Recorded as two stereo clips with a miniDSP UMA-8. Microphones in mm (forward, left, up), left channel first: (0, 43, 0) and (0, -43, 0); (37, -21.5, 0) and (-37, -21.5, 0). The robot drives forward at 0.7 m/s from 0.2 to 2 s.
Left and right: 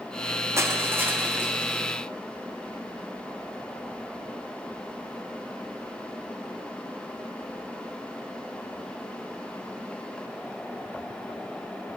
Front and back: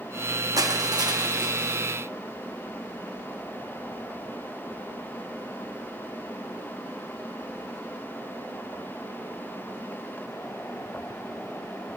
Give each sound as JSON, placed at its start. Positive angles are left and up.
{"t": 0.6, "sound": "crushing", "azimuth_deg": -145, "distance_m": 0.8}